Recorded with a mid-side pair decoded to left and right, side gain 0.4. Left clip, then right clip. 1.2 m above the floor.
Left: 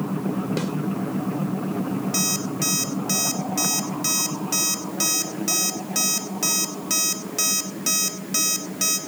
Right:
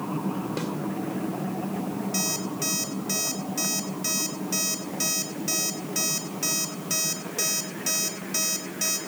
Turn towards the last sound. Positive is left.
turn(degrees=50)